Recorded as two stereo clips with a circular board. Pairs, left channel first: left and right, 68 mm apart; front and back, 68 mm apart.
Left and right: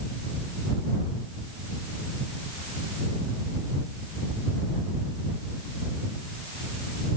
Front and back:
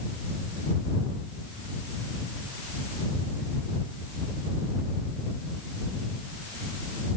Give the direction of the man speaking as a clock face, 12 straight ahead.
I don't hear a man speaking.